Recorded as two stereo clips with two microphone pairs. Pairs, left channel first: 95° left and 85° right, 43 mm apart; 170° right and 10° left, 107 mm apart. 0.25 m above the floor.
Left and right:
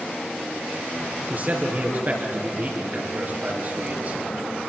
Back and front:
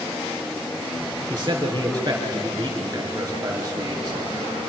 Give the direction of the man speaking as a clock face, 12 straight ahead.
1 o'clock.